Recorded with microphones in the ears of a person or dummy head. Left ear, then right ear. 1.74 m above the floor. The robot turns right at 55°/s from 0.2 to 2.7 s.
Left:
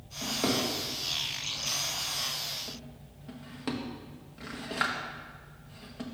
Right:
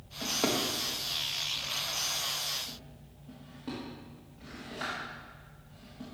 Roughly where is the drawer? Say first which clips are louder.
Even; right.